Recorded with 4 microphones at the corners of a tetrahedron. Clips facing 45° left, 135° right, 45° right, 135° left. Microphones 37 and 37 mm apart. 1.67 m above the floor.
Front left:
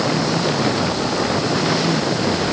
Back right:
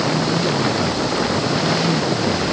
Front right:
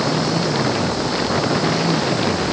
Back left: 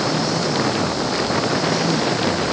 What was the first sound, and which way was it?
Only background noise.